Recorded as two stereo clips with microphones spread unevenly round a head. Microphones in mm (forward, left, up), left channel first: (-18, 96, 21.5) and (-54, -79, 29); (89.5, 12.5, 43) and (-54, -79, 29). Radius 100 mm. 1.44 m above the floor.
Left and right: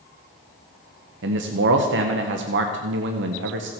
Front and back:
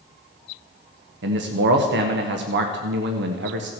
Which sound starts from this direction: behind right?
A man speaking, at 1.2 s.